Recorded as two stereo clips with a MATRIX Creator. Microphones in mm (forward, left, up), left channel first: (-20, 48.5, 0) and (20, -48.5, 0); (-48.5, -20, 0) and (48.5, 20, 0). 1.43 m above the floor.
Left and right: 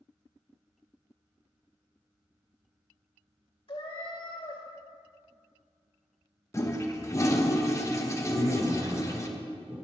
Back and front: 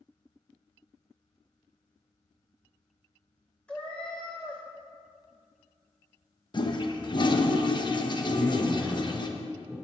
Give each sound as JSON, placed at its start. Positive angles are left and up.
{"t": 3.7, "sound": "a cat meowing", "azimuth_deg": 125, "distance_m": 1.8}
{"t": 6.5, "sound": "a toilet flushing", "azimuth_deg": 170, "distance_m": 0.9}
{"t": 8.3, "sound": "a man speaking", "azimuth_deg": -65, "distance_m": 4.5}